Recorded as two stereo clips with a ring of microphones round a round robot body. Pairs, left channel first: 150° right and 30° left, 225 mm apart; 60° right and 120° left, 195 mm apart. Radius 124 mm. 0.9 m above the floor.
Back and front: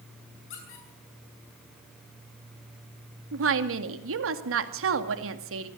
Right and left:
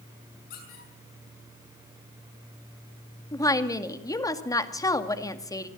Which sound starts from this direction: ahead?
A woman speaking, at 3.3 s.